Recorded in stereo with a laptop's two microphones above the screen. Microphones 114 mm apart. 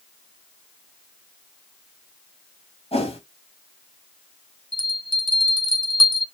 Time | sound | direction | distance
2.9 | a whoosh | 60° left (ahead or behind) | 1.5 m
4.7 | a bell | 45° left (ahead or behind) | 0.6 m